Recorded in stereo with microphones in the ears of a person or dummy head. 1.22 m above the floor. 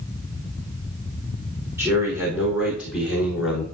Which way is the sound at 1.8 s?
15° right (ahead or behind).